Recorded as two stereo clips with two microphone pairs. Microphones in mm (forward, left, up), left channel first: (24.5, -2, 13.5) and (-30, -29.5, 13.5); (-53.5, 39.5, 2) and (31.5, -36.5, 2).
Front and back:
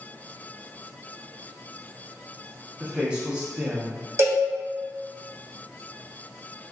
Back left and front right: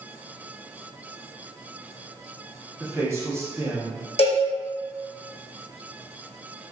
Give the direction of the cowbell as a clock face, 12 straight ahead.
7 o'clock.